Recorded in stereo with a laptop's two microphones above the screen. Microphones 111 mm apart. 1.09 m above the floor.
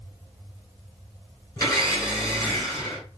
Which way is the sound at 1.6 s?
25° left (ahead or behind).